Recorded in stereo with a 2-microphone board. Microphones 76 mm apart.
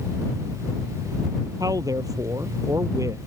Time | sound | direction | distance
1.6 | a man speaking | 50° right (ahead or behind) | ?